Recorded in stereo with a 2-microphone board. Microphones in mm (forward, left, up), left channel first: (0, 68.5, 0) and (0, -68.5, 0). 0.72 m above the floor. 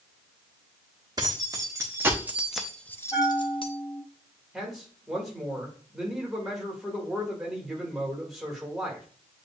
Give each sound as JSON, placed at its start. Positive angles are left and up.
{"t": 1.2, "sound": "keys jangling", "side_deg": -30, "distance_m": 1.2}
{"t": 3.1, "sound": "a bell", "side_deg": 20, "distance_m": 3.5}
{"t": 4.5, "sound": "a man speaking", "side_deg": 0, "distance_m": 1.8}